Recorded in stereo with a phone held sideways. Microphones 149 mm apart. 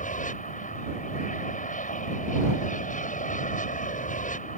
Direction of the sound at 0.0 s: 60° left (ahead or behind).